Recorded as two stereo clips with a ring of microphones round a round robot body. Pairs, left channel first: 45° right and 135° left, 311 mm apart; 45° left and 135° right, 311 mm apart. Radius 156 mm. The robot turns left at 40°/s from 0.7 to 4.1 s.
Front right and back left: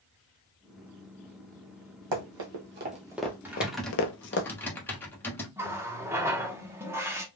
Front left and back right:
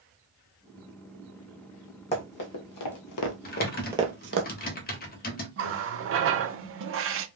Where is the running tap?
150° right, 0.6 m.